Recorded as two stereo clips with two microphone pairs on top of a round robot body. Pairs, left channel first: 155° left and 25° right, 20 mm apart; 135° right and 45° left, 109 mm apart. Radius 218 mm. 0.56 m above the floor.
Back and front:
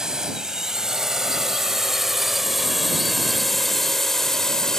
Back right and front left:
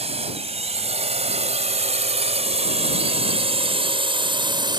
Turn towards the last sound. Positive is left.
turn(degrees=90)